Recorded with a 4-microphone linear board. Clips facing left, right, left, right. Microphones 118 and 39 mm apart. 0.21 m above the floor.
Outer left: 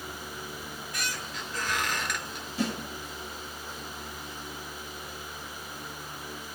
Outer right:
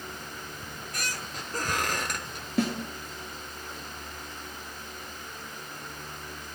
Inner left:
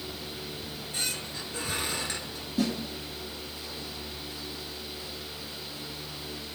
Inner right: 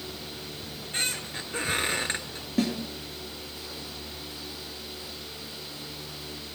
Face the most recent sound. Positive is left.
turn(degrees=-60)  # may be behind; listen again after turning